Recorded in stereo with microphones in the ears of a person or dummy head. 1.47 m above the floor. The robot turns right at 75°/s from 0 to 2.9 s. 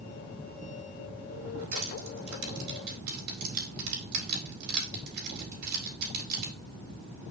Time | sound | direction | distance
1.7 | crushing | 35° right (ahead or behind) | 4 m